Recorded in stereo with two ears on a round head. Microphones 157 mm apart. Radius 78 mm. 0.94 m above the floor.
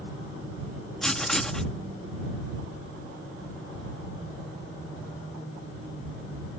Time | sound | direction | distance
1.0 | writing | 5° left (ahead or behind) | ?